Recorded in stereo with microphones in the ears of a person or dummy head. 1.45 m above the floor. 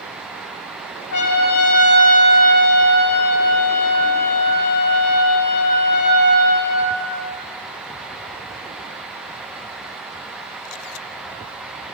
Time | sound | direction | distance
1.1 | a trumpet | 65° left (ahead or behind) | 1.6 m